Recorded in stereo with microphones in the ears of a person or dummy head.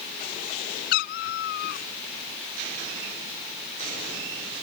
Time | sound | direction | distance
0.9 | a cat meowing | 65° left (ahead or behind) | ?